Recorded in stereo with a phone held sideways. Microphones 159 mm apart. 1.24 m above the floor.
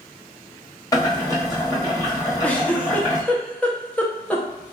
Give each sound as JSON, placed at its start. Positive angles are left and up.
{"t": 0.9, "sound": "boiling", "side_deg": 25, "distance_m": 1.5}
{"t": 2.4, "sound": "a giggle", "side_deg": 10, "distance_m": 0.7}